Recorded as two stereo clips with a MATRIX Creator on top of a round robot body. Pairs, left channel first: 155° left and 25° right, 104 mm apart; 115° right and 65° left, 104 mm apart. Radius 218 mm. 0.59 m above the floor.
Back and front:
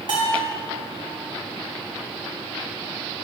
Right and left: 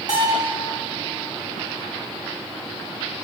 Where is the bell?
20° left, 2.5 m.